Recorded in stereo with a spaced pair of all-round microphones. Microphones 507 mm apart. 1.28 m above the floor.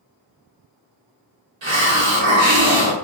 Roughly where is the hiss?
Right.